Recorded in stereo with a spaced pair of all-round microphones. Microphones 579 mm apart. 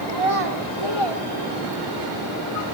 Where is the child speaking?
80° right, 3 m; by 2.1 s 35° right (ahead or behind), 3 m.